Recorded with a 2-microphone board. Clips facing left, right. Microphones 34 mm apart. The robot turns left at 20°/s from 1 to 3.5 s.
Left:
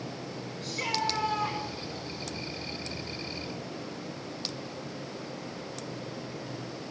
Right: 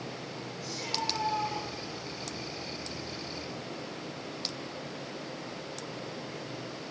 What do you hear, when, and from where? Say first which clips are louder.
0.6 s a shout: left 4 dB; 50° left (ahead or behind), 6 m; by 1.6 s 35° left (ahead or behind), 6 m